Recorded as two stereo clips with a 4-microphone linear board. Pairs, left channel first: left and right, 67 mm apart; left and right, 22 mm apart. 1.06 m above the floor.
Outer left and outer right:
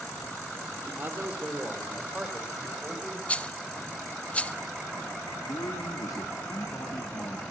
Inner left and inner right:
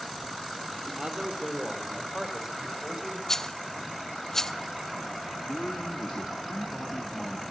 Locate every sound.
0.8 s a man speaking: 35° right (ahead or behind), 2 m; by 3.2 s 5° right (ahead or behind), 4 m
3.3 s a rattle: 20° left (ahead or behind), 0.6 m
5.5 s a man speaking: 75° left (ahead or behind), 1.8 m